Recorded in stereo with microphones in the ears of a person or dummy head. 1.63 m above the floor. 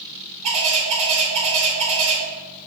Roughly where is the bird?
Right.